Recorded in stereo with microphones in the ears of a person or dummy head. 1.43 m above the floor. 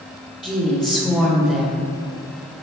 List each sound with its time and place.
0.4 s a woman speaking: centre (ahead or behind), 0.5 m